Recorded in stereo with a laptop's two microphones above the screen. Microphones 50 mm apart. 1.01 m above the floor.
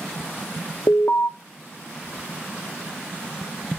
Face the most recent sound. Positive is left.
turn(degrees=60)  # may be behind; listen again after turning